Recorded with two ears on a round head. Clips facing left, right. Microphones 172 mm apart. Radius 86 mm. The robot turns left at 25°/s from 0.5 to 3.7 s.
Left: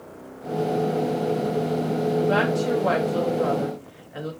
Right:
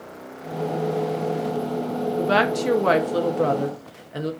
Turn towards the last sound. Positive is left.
turn(degrees=-125)